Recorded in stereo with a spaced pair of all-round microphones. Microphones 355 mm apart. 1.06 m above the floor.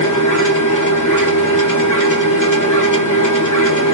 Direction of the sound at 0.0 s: 55° left (ahead or behind).